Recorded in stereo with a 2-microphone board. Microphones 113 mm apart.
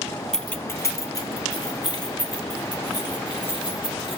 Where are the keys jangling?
5° left (ahead or behind), 0.7 m; by 4.2 s 40° left (ahead or behind), 5 m.